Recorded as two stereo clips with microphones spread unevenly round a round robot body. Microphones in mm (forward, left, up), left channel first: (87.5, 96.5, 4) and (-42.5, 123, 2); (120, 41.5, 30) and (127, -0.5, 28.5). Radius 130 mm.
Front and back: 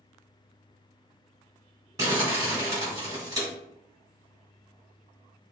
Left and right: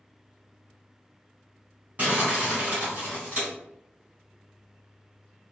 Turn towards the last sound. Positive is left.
turn(degrees=-125)